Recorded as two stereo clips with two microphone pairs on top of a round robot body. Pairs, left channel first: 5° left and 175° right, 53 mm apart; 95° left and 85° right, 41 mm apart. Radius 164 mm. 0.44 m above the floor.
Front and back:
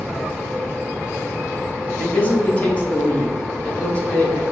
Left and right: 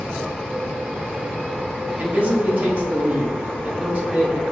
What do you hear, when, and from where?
2.0 s a man speaking: 50° right, 1.1 m